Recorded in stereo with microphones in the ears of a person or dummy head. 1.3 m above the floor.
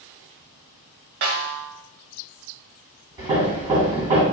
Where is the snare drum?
50° right (ahead or behind), 1.5 m.